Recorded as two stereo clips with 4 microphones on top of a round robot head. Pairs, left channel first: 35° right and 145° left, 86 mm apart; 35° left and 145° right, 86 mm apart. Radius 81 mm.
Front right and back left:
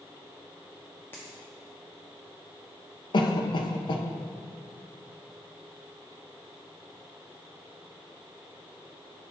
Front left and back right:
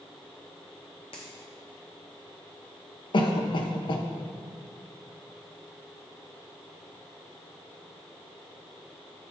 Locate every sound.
1.1 s a dropped coin: 30° left, 0.9 m
3.1 s a cough: straight ahead, 0.9 m